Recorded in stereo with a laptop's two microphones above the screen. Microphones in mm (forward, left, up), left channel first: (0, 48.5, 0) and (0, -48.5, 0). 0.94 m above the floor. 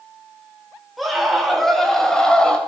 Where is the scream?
Centre (ahead or behind), 7.5 m; by 2.6 s 10° left (ahead or behind), 6 m.